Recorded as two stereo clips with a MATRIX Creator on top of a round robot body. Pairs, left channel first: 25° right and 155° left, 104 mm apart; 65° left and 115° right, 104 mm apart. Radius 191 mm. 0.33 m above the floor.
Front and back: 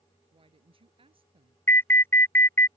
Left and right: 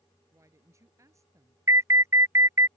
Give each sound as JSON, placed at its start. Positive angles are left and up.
{"t": 0.3, "sound": "a woman speaking", "azimuth_deg": -175}
{"t": 1.7, "sound": "an alarm", "azimuth_deg": -75}